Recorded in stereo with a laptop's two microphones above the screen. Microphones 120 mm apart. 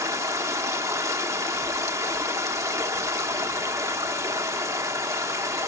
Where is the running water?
25° right (ahead or behind), 1.0 m.